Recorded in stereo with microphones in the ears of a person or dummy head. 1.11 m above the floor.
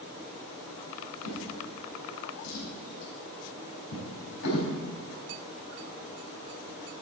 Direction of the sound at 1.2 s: 85° left.